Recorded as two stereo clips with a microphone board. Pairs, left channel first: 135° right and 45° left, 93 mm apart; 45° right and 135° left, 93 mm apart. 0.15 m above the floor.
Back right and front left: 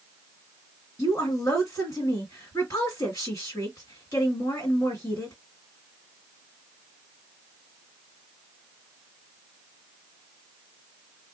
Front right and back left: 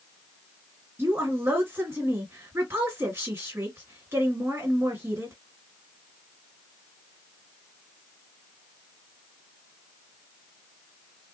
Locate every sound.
1.0 s a woman speaking: 170° right, 2 m